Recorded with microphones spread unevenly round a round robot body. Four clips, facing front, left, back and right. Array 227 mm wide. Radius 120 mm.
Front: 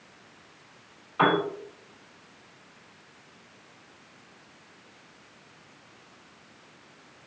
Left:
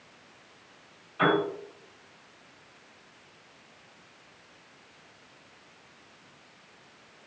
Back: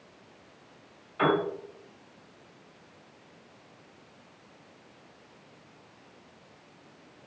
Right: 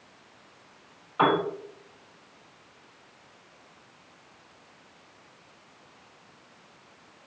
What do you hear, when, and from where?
1.2 s a piano: 40° right, 2.5 m